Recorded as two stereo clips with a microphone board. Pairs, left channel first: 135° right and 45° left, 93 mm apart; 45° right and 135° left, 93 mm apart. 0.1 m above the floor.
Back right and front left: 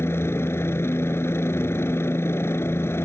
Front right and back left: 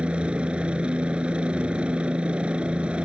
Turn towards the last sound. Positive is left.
turn(degrees=-160)